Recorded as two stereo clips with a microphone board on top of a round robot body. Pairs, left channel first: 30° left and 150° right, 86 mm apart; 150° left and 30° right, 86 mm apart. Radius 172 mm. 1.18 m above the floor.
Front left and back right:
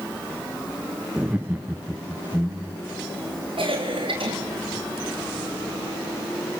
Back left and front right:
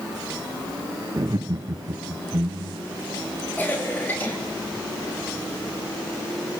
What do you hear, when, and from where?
1.2 s laughter: 80° right, 0.8 m; by 3.0 s 70° right, 2 m
3.6 s a cough: 140° right, 3.5 m